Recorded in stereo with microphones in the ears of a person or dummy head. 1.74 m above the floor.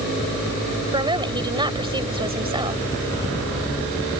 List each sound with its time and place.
0.9 s a woman speaking: 20° right (ahead or behind)